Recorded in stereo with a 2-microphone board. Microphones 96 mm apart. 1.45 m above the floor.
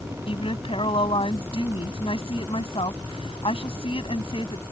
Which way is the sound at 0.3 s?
70° left (ahead or behind).